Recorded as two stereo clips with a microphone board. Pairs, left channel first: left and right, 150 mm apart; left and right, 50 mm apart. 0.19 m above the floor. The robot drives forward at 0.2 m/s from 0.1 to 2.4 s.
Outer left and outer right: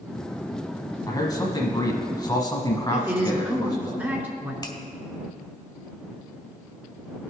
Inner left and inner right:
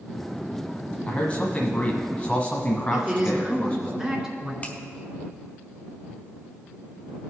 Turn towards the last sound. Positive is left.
turn(degrees=30)  # may be behind; listen again after turning